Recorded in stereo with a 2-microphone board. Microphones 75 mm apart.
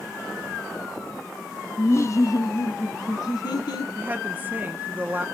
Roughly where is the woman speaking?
Right.